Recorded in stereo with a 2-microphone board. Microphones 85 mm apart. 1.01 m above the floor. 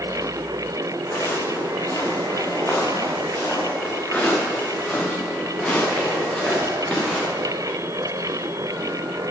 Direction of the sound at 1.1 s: 35° left (ahead or behind).